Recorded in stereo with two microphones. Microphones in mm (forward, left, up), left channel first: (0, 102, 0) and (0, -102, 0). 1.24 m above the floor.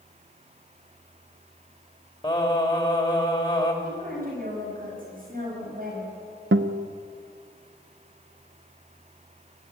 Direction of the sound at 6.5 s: 75° right (ahead or behind).